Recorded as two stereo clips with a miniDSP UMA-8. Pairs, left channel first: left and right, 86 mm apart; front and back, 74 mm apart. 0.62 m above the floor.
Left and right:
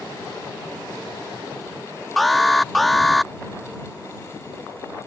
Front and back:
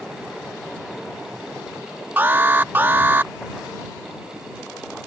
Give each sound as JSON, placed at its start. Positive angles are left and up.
{"t": 2.2, "sound": "an alarm", "azimuth_deg": 175}